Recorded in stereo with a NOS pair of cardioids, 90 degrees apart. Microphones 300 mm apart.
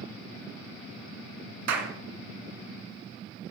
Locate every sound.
1.7 s a clap: 70° right, 2 m